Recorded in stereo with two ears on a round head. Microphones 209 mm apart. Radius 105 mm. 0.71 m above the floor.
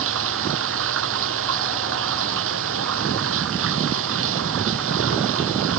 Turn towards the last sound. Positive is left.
turn(degrees=-60)  # may be behind; listen again after turning